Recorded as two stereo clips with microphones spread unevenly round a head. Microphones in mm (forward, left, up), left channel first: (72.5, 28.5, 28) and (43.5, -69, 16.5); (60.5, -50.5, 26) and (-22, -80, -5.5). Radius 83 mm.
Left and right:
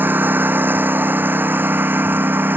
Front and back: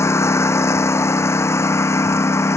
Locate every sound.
0.0 s a lawn mower: 35° right